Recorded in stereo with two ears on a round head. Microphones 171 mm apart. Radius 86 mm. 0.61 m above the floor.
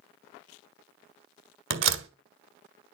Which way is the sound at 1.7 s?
70° right (ahead or behind).